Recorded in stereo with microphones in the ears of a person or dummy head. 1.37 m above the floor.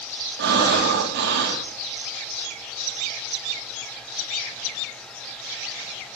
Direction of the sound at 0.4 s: 55° right (ahead or behind).